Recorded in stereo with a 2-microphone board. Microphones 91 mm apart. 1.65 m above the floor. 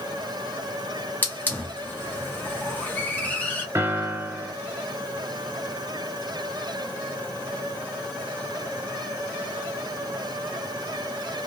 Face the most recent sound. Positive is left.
turn(degrees=-30)  # may be behind; listen again after turning